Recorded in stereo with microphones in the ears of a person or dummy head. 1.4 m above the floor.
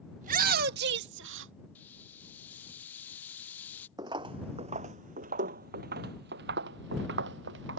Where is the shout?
45° right (ahead or behind); by 1.5 s 75° right (ahead or behind).